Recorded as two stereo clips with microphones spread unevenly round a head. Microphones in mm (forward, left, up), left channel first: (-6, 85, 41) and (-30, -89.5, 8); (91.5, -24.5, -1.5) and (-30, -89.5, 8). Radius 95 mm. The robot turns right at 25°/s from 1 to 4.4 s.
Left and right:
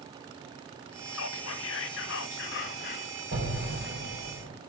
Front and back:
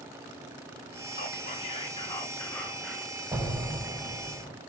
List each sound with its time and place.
1.1 s whispering: 75° left, 1.6 m; by 3.1 s 125° left, 1.6 m
3.3 s an explosion: 85° right, 6 m; by 4.5 s 55° right, 6 m